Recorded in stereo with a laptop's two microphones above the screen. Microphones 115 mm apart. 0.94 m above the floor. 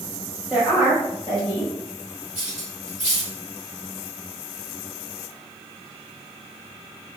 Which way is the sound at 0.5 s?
15° right (ahead or behind).